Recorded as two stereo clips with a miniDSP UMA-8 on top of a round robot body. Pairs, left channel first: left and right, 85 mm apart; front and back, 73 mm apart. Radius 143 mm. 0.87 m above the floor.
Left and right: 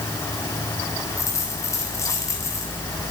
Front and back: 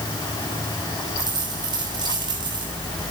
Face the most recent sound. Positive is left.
turn(degrees=150)